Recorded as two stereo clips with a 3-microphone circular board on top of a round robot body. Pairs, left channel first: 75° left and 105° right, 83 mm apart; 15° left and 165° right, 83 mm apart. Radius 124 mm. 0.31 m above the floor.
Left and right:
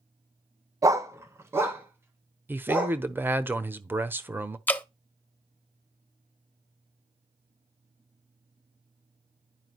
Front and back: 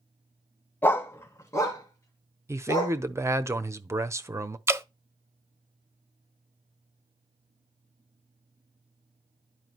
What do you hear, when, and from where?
0.8 s a dog barking: 55° right, 0.6 m; by 3.0 s 40° right, 2.5 m
2.5 s a man speaking: 150° right, 1.1 m
4.7 s dripping: 140° left, 0.8 m